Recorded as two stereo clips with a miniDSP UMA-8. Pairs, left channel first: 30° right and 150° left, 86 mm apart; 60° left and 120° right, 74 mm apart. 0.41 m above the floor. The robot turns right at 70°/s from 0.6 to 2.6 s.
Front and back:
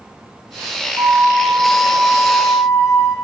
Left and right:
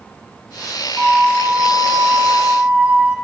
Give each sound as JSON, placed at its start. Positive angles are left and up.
{"t": 1.0, "sound": "a flute", "azimuth_deg": 175, "distance_m": 1.5}